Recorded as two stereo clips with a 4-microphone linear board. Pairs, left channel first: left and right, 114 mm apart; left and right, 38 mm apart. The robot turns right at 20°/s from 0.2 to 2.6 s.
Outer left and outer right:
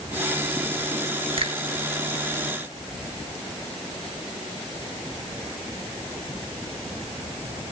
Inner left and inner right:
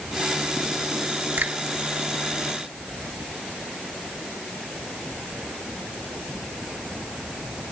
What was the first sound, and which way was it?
A finger snap, 50° right (ahead or behind).